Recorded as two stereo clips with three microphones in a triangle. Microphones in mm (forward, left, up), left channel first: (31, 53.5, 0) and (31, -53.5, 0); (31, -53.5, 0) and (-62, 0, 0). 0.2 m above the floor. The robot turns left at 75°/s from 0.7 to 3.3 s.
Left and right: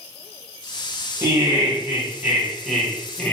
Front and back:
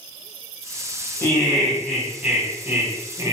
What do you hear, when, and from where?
1.2 s laughter: 65° right, 1.1 m; by 3.4 s 140° left, 1.1 m